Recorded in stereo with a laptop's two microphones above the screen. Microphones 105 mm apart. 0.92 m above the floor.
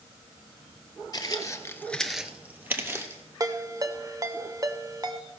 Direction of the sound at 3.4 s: 35° right (ahead or behind).